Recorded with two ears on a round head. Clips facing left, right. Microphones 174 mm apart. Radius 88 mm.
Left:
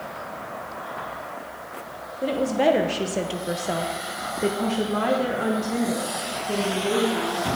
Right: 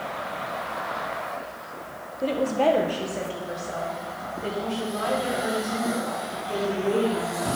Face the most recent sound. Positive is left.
turn(degrees=50)  # may be behind; listen again after turning